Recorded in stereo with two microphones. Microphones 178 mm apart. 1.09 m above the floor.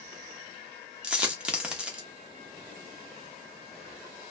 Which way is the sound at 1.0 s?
5° right (ahead or behind).